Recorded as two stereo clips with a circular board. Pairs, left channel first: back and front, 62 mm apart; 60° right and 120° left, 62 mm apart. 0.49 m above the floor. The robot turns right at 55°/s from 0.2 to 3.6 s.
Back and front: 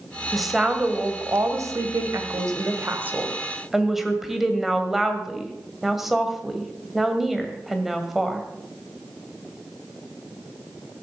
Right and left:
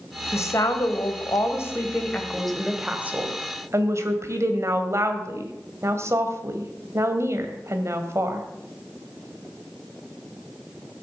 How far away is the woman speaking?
About 1.9 m.